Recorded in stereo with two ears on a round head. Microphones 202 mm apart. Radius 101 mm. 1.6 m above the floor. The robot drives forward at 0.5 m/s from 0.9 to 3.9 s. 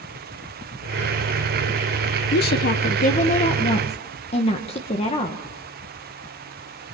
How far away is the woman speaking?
About 1.0 m.